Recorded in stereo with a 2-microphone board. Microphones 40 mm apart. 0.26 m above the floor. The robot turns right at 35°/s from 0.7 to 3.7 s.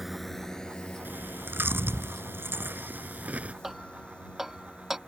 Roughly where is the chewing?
Right.